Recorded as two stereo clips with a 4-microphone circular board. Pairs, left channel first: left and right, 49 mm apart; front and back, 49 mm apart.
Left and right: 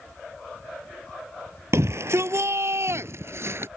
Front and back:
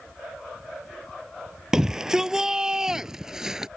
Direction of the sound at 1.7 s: 100° right.